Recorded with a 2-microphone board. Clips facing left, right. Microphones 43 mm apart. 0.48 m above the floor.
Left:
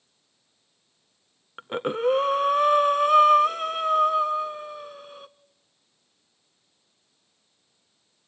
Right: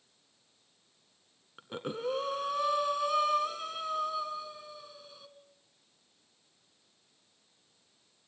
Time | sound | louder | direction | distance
1.6 | breathing | left 11 dB | 50° left (ahead or behind) | 0.7 m